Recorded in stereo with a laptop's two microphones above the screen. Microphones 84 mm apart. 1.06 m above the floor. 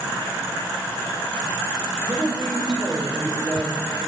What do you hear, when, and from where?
2.0 s a woman speaking: 5° left (ahead or behind), 5 m